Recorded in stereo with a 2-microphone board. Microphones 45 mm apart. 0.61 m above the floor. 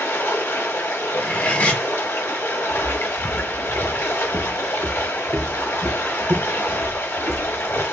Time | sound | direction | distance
0.0 | running water | 65° left (ahead or behind) | 1.2 m
1.1 | cutlery clinking | 35° left (ahead or behind) | 1.0 m
2.7 | footsteps | 35° left (ahead or behind) | 0.9 m